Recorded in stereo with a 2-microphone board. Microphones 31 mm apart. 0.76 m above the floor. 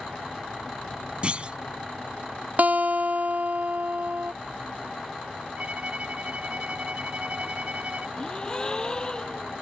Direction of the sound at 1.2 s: 35° right (ahead or behind).